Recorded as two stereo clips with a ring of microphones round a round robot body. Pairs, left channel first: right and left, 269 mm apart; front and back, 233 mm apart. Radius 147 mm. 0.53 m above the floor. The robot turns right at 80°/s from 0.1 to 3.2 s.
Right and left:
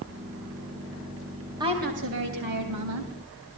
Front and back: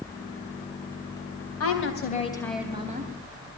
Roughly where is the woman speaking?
Ahead.